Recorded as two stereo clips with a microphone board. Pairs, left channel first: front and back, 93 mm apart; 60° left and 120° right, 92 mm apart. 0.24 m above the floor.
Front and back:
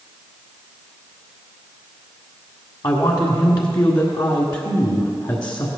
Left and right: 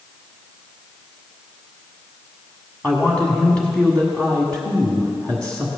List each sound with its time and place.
2.8 s a man speaking: 15° right, 1.5 m